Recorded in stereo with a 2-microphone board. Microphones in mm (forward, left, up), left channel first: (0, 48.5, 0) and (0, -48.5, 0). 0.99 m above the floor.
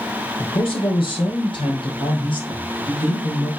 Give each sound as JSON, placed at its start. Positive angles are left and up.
{"t": 0.4, "sound": "a man speaking", "side_deg": 70, "distance_m": 3.0}